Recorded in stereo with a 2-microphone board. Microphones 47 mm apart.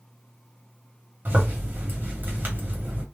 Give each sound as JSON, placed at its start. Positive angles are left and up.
{"t": 1.2, "sound": "a zipper", "side_deg": -45, "distance_m": 1.2}